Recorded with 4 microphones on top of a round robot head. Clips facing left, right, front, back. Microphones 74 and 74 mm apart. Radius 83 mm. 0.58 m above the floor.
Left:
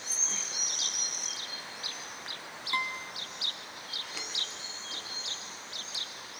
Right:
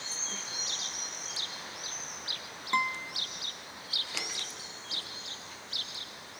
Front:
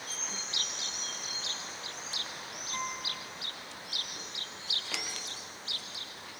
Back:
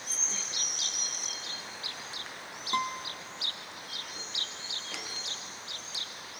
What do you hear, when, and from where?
2.7 s a guitar: 160° right, 1.0 m